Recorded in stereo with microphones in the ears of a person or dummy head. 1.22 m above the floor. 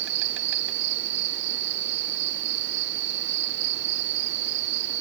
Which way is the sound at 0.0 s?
65° right (ahead or behind).